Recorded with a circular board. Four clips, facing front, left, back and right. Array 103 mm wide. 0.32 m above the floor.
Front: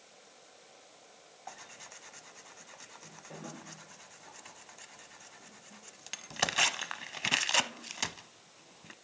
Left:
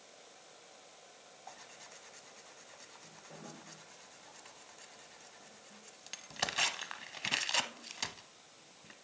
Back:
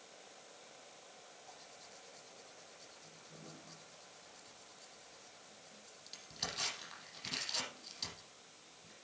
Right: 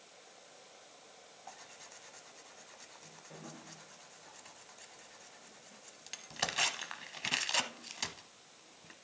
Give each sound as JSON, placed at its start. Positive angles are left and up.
{"t": 1.5, "sound": "tearing paper", "azimuth_deg": 0, "distance_m": 0.8}